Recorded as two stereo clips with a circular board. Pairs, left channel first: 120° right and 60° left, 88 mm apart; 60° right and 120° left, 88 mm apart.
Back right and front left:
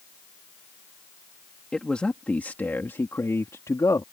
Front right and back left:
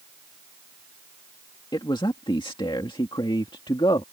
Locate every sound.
1.7 s a man speaking: 40° right; by 4.0 s 75° right